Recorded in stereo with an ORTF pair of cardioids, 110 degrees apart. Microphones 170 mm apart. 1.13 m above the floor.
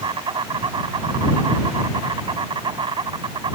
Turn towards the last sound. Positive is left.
turn(degrees=-30)